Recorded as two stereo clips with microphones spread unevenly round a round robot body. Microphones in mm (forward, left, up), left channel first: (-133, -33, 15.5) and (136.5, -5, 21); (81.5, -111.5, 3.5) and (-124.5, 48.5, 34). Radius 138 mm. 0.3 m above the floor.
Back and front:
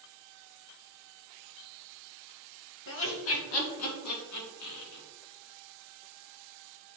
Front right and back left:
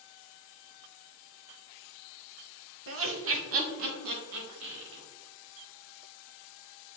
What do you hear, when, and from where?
2.9 s laughter: 165° left, 1.6 m; by 5.0 s 175° left, 4 m